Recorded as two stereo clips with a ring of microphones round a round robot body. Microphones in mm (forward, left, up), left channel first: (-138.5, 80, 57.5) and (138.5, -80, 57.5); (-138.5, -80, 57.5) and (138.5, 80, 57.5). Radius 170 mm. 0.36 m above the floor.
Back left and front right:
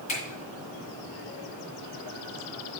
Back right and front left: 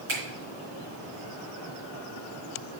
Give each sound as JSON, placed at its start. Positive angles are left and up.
{"t": 0.1, "sound": "a finger snap", "azimuth_deg": 80, "distance_m": 4.0}